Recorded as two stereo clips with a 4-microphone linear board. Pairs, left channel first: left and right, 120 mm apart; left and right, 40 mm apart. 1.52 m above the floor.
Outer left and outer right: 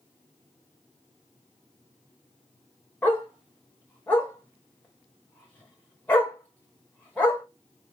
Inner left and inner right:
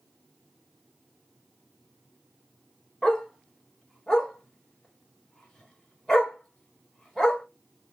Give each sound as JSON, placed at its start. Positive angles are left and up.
{"t": 3.0, "sound": "a dog barking", "side_deg": 15, "distance_m": 1.4}